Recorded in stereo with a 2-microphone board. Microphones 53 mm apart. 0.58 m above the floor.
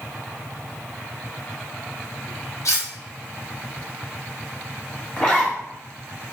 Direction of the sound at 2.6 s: 70° left (ahead or behind).